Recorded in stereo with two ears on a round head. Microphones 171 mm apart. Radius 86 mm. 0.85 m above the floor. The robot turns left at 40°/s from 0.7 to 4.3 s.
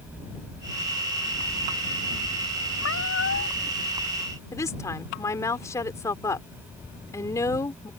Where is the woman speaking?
15° left (ahead or behind).